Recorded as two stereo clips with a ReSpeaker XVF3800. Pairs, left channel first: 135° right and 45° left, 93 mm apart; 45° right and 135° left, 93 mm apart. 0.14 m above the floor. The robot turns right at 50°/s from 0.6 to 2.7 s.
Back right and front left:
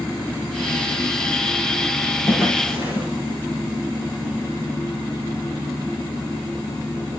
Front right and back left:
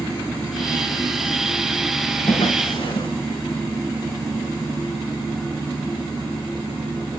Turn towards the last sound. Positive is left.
turn(degrees=-15)